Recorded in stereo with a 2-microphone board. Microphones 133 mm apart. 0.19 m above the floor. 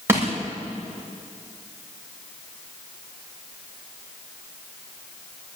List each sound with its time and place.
0.1 s crushing: 20° right (ahead or behind), 8.5 m